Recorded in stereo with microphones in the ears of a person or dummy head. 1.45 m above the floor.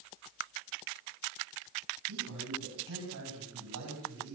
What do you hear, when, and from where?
2.1 s a man speaking: 90° right, 8 m; by 4.4 s 85° right, 9 m